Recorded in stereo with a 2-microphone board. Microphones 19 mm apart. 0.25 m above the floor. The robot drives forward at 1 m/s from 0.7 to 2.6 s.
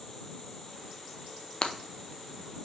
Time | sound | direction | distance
1.6 | breaking glass | 50° left (ahead or behind) | 0.6 m